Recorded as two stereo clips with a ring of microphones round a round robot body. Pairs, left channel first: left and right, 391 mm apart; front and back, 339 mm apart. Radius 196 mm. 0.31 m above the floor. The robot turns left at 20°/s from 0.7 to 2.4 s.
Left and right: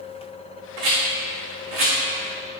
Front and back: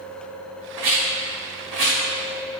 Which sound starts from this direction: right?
A rattle, at 0.8 s.